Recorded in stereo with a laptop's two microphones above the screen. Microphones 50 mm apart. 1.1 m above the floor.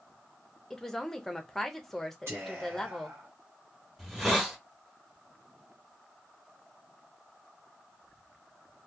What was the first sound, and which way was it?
A woman speaking, 5° left (ahead or behind).